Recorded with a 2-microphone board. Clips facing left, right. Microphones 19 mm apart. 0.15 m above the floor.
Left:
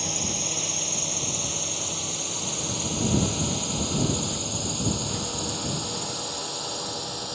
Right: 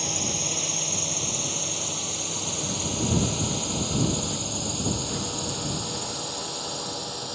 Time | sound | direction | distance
0.0 | a drone | 5° right (ahead or behind) | ?